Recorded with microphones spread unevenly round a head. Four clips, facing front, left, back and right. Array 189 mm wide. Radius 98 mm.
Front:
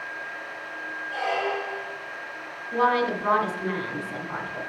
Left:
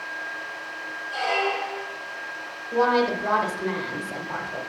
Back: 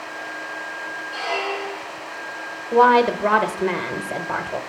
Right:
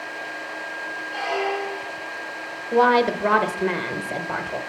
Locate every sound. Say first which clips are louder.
1.1 s a squeak: even, even; 40° left, 2.5 m
2.7 s a woman speaking: right 4 dB, back 8 dB; 145° right, 1.0 m